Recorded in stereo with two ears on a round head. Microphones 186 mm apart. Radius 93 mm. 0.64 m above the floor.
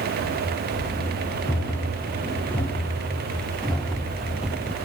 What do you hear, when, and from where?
0.2 s running footsteps: 10° left (ahead or behind), 4 m; by 4.8 s 5° right (ahead or behind), 0.8 m